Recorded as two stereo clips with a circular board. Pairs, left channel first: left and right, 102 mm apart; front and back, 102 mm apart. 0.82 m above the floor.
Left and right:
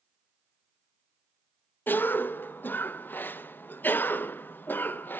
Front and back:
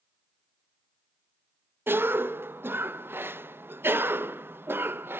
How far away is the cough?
About 0.5 m.